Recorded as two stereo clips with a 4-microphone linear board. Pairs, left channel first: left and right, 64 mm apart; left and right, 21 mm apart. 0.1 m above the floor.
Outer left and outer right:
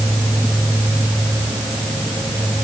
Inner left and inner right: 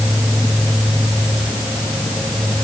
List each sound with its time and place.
Only background noise.